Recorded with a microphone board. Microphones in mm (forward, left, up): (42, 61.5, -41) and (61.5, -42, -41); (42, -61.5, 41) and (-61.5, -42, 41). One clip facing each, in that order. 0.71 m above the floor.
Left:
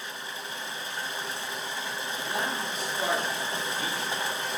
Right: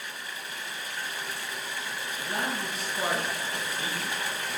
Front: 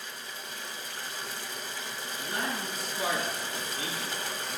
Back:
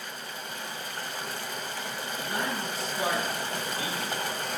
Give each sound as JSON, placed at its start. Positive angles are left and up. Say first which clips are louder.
{"t": 0.0, "sound": "running water", "louder": "left 2 dB, back 3 dB", "azimuth_deg": 160, "distance_m": 0.9}
{"t": 2.2, "sound": "a man speaking", "louder": "even, back 2 dB", "azimuth_deg": -135, "distance_m": 6.5}